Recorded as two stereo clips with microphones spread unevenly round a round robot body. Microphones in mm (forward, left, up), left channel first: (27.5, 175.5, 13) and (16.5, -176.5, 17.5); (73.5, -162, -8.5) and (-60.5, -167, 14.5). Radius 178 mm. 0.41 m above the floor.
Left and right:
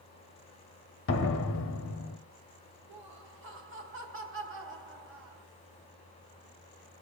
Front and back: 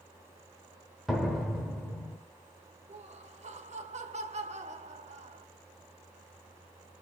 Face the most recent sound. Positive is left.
turn(degrees=-145)